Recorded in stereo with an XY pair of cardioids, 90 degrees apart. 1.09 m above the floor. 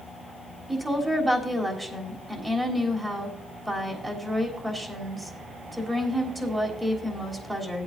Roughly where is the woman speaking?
Ahead.